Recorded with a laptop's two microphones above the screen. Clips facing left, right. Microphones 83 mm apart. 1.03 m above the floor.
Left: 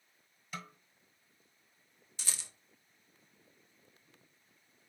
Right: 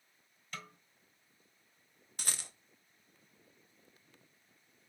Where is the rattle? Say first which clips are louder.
Right 3 dB; 55° right (ahead or behind), 0.6 m.